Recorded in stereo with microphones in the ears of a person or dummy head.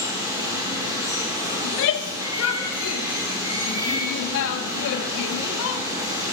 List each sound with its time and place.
0.0 s running water: 20° right (ahead or behind), 2 m
1.6 s a shout: 70° left (ahead or behind), 0.6 m